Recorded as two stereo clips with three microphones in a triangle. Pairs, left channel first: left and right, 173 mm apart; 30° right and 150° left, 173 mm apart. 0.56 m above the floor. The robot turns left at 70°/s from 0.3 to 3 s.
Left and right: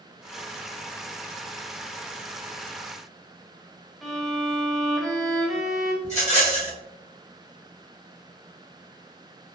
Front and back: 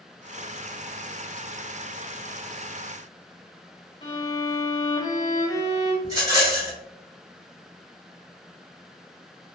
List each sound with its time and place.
4.0 s a violin: straight ahead, 0.9 m
6.0 s a rattle: 95° left, 1.6 m